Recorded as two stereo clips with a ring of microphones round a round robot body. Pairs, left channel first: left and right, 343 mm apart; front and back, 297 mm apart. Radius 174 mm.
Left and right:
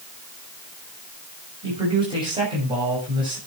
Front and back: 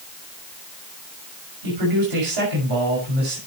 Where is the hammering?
No hammering in this recording.